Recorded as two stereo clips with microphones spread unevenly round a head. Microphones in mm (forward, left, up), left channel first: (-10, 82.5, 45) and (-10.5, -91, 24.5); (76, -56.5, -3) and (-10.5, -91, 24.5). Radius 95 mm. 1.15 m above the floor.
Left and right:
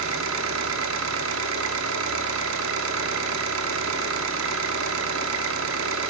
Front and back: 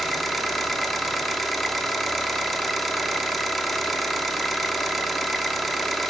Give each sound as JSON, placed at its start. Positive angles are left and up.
{"t": 0.0, "sound": "an engine running", "azimuth_deg": -75, "distance_m": 1.1}